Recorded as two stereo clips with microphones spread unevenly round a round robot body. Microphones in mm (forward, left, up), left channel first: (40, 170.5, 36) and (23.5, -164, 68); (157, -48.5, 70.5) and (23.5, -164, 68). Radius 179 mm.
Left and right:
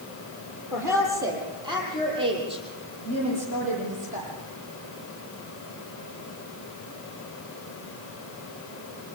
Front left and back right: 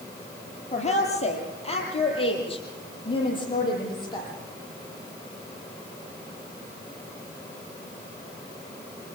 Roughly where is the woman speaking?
Ahead.